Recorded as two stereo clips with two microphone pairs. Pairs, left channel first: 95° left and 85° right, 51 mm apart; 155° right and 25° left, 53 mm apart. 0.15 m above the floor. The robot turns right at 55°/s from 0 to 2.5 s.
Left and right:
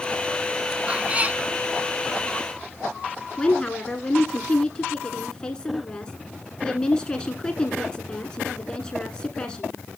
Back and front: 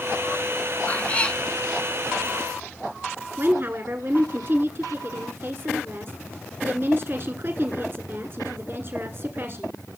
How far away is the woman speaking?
About 1.4 m.